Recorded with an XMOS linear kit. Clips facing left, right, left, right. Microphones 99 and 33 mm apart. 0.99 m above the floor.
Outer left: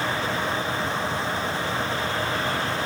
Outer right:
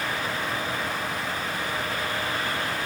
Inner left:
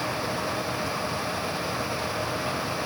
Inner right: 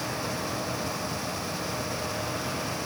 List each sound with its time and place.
Only background noise.